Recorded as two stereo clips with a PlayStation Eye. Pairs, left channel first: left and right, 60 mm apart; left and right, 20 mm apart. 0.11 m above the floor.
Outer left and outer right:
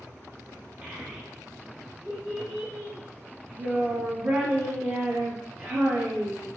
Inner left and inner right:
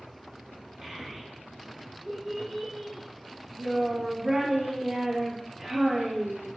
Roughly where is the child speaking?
Right.